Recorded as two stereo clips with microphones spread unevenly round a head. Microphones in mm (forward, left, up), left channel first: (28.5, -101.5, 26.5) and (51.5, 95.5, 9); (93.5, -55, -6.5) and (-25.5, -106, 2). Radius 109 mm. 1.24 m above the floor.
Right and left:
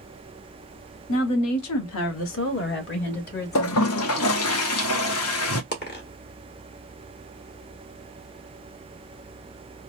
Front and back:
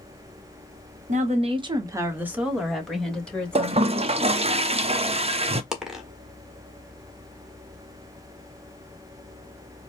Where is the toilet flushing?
115° right, 0.6 m.